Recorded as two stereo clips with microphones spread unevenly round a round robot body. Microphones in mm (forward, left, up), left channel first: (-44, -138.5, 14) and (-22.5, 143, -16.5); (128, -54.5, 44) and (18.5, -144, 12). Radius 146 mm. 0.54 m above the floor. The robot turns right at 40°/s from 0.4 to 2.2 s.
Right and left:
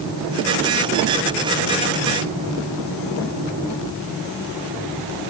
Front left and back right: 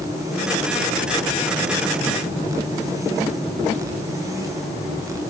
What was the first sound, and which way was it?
Only background noise.